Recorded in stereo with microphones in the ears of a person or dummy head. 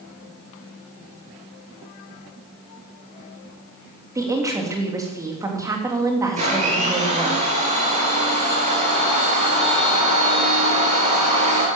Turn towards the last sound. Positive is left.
turn(degrees=-35)  # may be behind; listen again after turning